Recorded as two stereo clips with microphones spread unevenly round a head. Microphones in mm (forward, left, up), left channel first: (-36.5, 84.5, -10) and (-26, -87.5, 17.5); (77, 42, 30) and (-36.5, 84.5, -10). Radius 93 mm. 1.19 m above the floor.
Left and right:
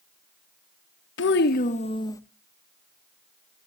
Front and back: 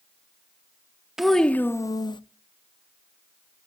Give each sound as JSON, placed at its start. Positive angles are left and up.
{"t": 1.2, "sound": "a child speaking", "azimuth_deg": 65, "distance_m": 0.8}